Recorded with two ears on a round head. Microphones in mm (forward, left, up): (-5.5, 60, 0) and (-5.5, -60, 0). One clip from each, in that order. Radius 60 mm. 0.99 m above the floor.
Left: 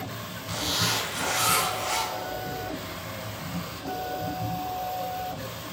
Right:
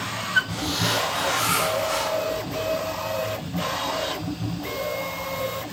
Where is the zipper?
65° left (ahead or behind), 1.1 m.